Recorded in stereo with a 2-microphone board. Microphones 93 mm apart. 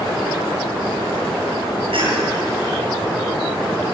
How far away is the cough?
About 7.5 m.